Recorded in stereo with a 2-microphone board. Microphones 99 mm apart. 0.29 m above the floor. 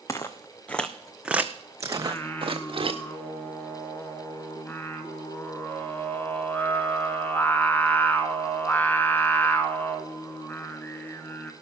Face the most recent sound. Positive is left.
turn(degrees=20)  # may be behind; listen again after turning